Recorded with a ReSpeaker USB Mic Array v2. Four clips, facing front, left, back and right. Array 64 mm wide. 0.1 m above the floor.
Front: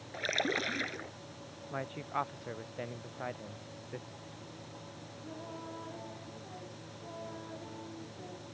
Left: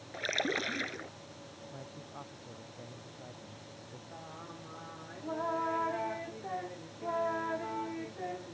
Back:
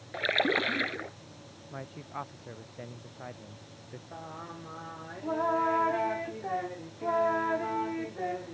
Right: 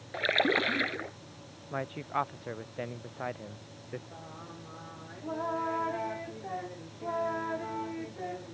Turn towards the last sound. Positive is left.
turn(degrees=180)